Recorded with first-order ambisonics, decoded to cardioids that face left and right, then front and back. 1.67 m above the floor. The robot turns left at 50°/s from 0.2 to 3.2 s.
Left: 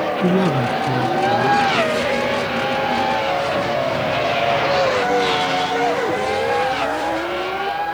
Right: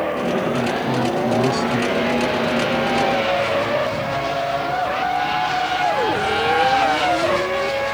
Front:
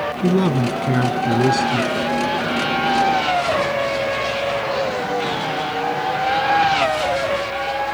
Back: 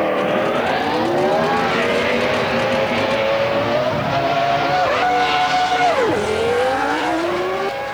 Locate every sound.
0.2 s a man speaking: 45° left; by 1.9 s 35° right